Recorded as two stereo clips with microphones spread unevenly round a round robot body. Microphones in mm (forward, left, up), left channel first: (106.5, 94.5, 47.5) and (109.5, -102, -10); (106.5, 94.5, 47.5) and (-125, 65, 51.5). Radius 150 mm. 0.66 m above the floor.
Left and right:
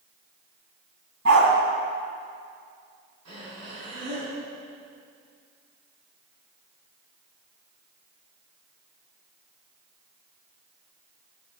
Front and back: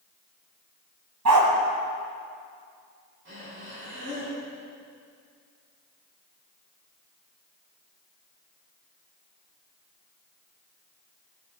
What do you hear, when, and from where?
1.2 s a dog barking: 145° right, 2.5 m
3.2 s breathing: 120° right, 6.5 m